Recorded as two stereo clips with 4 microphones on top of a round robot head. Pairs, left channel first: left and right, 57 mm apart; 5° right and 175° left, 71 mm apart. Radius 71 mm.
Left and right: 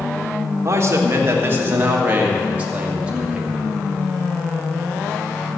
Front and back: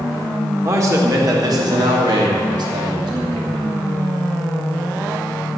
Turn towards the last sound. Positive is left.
turn(degrees=-165)